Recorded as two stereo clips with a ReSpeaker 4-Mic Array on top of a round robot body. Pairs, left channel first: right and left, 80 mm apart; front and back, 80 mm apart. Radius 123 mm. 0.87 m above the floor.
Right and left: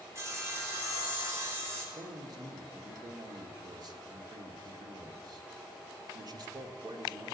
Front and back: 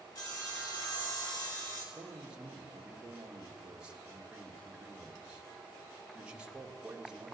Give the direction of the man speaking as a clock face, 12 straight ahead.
9 o'clock.